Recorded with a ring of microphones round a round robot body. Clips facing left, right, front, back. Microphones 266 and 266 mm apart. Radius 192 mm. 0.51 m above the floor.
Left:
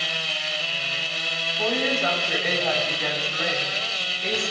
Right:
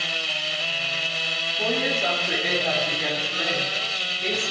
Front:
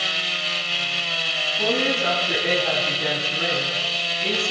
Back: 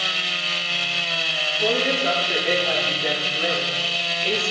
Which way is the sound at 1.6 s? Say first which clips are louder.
Left 1 dB, even; 10° right.